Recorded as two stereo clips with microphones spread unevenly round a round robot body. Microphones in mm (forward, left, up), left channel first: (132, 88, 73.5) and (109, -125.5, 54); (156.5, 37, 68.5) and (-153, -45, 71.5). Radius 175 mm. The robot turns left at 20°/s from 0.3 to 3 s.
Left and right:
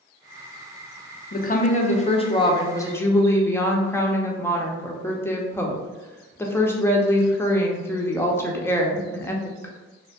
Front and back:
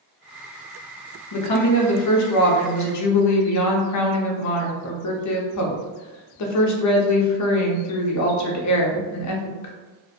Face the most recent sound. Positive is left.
turn(degrees=0)